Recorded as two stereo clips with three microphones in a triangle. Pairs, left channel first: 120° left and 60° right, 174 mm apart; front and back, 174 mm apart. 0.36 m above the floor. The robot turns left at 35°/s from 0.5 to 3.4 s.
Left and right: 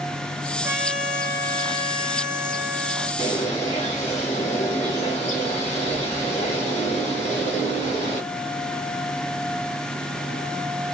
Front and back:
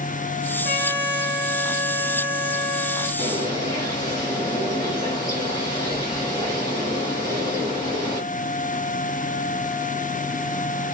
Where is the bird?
75° left, 2 m; by 8.2 s 70° left, 2 m.